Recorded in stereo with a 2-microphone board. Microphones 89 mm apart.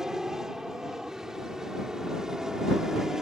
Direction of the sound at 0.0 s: 5° right (ahead or behind).